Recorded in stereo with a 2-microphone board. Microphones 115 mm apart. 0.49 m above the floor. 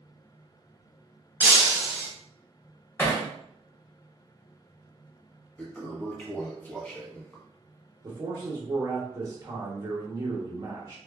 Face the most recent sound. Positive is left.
turn(degrees=-30)  # may be behind; listen again after turning